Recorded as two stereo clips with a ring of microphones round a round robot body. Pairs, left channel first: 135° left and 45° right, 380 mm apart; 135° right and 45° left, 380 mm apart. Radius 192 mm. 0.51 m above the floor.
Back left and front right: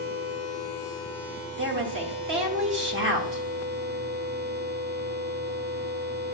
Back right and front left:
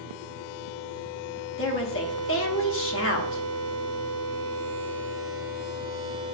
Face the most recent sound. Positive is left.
turn(degrees=-95)